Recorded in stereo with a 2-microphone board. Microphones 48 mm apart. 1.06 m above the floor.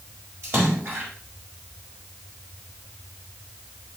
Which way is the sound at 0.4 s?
60° right (ahead or behind).